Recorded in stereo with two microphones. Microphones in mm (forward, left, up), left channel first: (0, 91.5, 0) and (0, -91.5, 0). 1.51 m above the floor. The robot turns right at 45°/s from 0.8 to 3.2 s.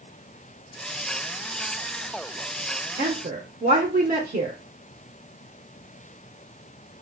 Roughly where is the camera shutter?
I don't hear a camera shutter.